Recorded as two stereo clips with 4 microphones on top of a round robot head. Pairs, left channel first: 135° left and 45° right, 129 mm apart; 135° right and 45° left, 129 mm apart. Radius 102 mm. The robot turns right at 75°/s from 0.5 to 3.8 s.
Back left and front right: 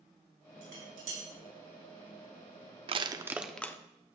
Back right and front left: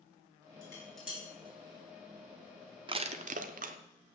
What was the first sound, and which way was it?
Dishes clattering, 70° right.